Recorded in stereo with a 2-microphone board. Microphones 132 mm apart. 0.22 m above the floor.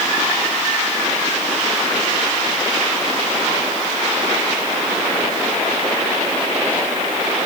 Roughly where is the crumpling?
No crumpling in this recording.